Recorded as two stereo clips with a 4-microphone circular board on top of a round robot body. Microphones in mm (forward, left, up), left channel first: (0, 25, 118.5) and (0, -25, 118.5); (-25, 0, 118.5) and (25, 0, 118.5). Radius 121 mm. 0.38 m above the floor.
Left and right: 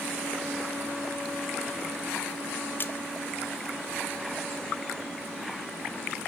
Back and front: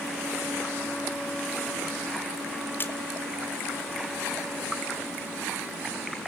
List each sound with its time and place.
2.8 s a splash: 135° left, 1.4 m